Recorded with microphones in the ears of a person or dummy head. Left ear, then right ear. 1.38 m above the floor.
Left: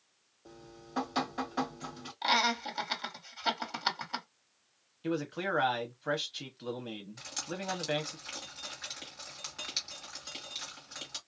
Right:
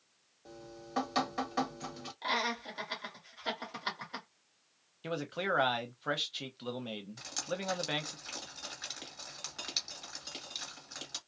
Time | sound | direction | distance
0.5 | dripping | 20° right (ahead or behind) | 1.4 m
2.2 | laughter | 30° left (ahead or behind) | 1.5 m
5.0 | a man speaking | 15° right (ahead or behind) | 0.6 m
7.2 | dripping | 10° right (ahead or behind) | 1.7 m